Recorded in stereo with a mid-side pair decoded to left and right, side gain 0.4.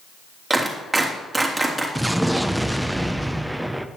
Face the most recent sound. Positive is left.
turn(degrees=-5)